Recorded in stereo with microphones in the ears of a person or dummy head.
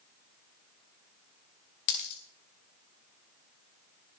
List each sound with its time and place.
1.9 s a dropped coin: 60° left (ahead or behind), 2 m